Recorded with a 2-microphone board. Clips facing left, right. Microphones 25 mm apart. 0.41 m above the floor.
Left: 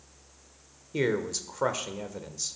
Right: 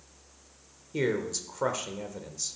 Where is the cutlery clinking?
No cutlery clinking in this recording.